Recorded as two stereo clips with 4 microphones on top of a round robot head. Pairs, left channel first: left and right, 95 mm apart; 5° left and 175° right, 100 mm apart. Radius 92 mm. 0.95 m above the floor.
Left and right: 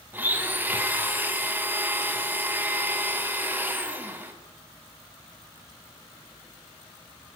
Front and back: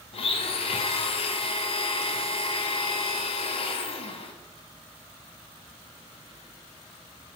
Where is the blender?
20° right, 0.8 m.